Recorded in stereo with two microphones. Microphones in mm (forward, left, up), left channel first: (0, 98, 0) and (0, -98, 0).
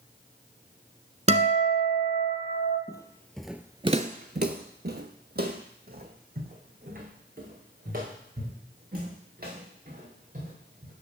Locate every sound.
1.3 s a guitar: 35° right (ahead or behind), 1.1 m
2.9 s footsteps: 20° left (ahead or behind), 0.8 m; by 10.9 s 50° right (ahead or behind), 5 m